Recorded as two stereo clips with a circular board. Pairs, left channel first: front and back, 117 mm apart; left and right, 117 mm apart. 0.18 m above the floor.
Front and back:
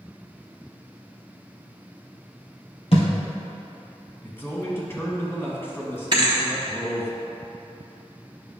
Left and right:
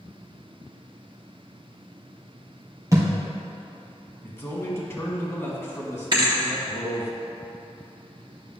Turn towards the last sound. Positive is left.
turn(degrees=-135)